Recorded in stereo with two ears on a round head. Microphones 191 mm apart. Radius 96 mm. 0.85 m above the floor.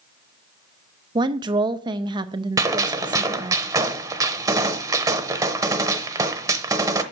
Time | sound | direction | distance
1.1 | a woman speaking | 20° right (ahead or behind) | 0.6 m
2.6 | a gunshot | 15° right (ahead or behind) | 0.9 m